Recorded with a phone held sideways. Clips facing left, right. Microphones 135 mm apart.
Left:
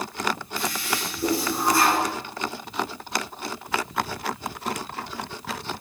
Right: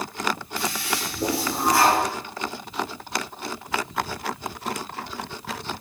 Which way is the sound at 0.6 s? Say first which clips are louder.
Even; 80° right.